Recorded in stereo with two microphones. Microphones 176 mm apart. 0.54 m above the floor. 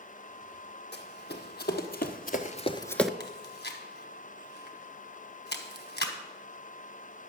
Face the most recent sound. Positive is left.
turn(degrees=65)  # may be behind; listen again after turning